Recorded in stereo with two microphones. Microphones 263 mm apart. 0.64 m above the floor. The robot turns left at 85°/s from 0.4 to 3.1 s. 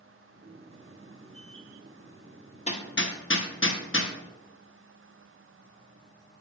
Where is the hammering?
25° left (ahead or behind), 0.7 m; by 4.1 s 50° left (ahead or behind), 0.7 m.